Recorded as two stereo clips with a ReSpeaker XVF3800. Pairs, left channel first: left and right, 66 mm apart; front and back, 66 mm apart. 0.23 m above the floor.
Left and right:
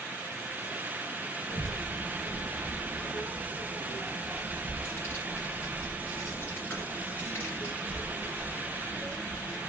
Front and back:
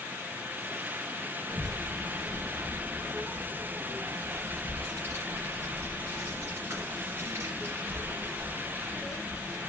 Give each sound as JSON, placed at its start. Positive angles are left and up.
{"t": 1.5, "sound": "a child speaking", "azimuth_deg": 150, "distance_m": 2.0}